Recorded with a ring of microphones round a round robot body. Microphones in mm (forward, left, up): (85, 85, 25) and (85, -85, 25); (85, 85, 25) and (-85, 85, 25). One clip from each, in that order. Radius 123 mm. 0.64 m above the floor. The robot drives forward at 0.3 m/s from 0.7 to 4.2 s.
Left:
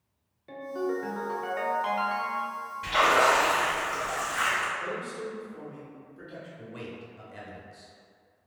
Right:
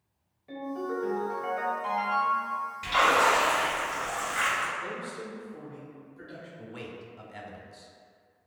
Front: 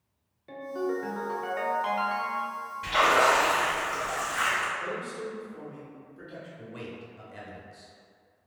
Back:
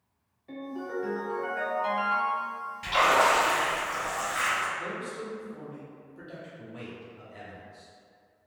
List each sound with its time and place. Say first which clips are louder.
0.5 s a ringtone: left 2 dB, front 5 dB; 40° left, 0.9 m; by 2.6 s 75° left, 0.6 m
2.8 s a splash: left 1 dB, even; 130° right, 1.5 m; by 4.7 s 145° right, 1.7 m
4.8 s a man speaking: left 2 dB, front 1 dB; 165° left, 1.5 m
6.6 s a man speaking: even, front 2 dB; 50° right, 0.6 m